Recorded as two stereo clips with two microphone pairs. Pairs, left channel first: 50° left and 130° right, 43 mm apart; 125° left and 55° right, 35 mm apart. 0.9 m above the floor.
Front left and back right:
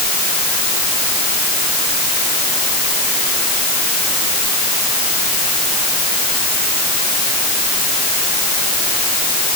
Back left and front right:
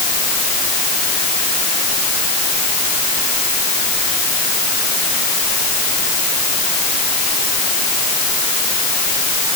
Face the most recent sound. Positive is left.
No sound to turn to.